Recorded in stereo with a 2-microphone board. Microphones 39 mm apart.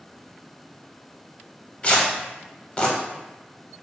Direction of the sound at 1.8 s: 30° left (ahead or behind).